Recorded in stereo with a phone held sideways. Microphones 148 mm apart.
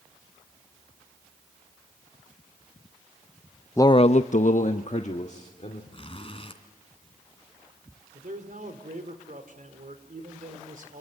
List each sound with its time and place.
3.8 s a man speaking: 20° left (ahead or behind), 0.6 m; by 5.8 s 50° left (ahead or behind), 2.5 m
5.9 s a zipper: 40° left (ahead or behind), 2.5 m
8.1 s a man speaking: 65° right (ahead or behind), 3.5 m